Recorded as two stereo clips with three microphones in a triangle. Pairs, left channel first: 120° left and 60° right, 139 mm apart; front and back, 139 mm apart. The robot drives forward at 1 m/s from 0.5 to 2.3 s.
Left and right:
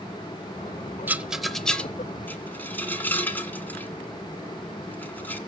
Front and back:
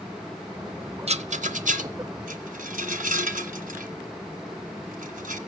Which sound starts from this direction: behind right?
A rattle, at 1.1 s.